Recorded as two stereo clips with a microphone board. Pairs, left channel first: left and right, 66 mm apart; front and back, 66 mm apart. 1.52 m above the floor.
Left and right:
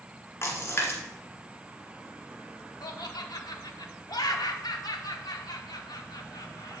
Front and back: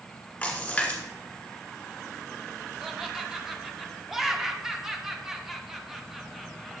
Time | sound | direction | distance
0.4 | a splash | 65° left | 1.5 m
2.8 | laughter | 95° left | 0.9 m